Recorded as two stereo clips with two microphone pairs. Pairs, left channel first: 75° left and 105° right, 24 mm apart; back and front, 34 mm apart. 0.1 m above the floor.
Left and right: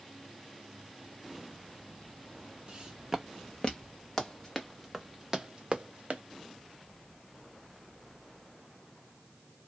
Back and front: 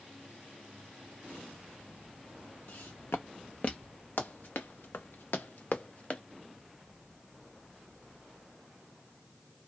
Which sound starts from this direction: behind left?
Running footsteps, at 4.2 s.